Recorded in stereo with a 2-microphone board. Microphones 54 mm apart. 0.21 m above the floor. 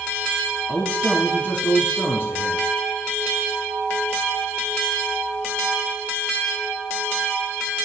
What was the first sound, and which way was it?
A man speaking, 25° left (ahead or behind).